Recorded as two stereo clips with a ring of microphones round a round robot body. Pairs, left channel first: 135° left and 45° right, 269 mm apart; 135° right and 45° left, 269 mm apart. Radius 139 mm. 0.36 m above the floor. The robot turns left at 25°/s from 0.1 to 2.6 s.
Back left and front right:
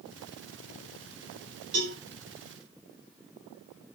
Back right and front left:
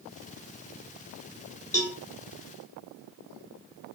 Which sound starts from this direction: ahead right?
A cowbell, at 1.7 s.